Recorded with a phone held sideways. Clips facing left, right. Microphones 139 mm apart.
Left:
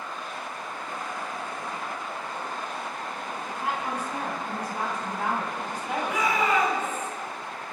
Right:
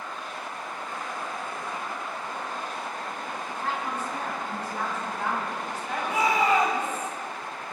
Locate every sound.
3.5 s a woman speaking: 15° left (ahead or behind), 7.5 m
6.0 s a shout: 35° right (ahead or behind), 6 m